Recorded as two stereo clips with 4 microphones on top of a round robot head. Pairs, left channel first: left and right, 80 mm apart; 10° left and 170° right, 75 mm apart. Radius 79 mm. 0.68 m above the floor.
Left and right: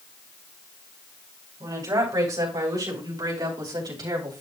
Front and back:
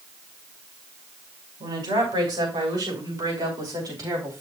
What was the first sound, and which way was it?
A woman speaking, 140° right.